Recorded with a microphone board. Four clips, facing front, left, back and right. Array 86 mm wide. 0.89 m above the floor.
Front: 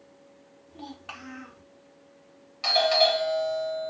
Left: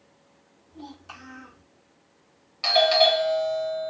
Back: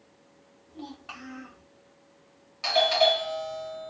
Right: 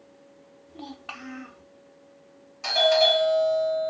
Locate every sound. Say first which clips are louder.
0.7 s a child speaking: right 2 dB, even; 75° right, 1.4 m
2.6 s a doorbell: left 1 dB, even; 80° left, 1.5 m